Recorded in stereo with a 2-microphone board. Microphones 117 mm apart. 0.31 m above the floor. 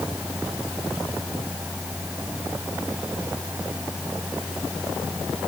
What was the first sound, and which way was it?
Only background noise.